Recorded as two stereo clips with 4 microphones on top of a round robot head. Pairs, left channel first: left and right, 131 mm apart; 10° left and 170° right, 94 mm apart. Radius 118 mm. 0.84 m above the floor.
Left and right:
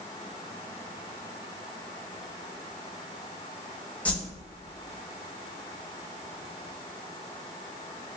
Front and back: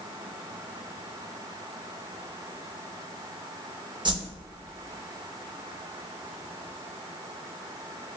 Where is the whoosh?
165° left, 0.9 m.